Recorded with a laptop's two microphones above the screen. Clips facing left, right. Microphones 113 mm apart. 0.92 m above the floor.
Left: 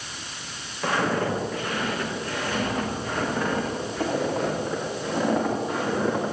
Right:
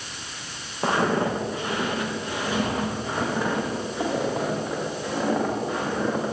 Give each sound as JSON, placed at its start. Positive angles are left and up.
{"t": 0.8, "sound": "footsteps", "side_deg": -30, "distance_m": 5.5}